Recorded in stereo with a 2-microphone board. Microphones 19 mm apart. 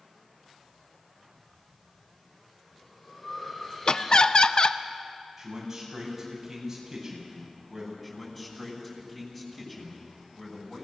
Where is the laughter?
45° left (ahead or behind), 0.6 m.